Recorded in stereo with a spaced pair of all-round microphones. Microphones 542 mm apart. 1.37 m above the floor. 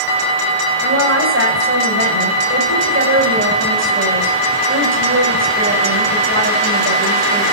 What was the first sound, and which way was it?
A woman speaking, 20° right (ahead or behind).